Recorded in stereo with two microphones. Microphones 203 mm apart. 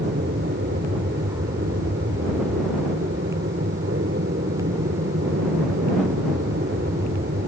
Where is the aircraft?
70° right (ahead or behind).